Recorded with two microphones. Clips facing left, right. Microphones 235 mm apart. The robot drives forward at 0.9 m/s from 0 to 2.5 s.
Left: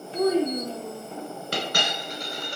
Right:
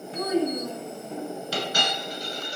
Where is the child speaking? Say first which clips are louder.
Left 3 dB; 30° left (ahead or behind), 0.7 m; by 1.1 s 15° left (ahead or behind), 1.2 m.